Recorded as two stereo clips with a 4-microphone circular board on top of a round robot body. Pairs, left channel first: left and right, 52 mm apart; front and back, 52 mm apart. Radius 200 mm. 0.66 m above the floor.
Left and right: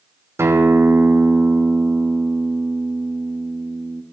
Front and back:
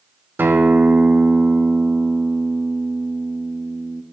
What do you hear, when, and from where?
0.4 s a guitar: 125° right, 1.1 m